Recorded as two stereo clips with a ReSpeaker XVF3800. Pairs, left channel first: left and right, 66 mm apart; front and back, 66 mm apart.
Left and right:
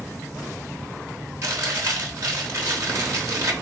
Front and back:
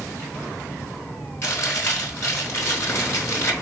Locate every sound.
1.4 s chewing: 50° right, 4.5 m